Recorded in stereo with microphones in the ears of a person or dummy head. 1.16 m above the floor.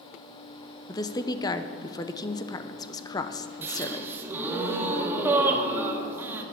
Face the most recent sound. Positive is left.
turn(degrees=-15)  # may be behind; listen again after turning